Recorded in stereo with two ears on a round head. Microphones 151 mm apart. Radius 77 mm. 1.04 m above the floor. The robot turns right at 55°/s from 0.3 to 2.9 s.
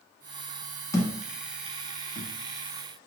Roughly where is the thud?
Centre.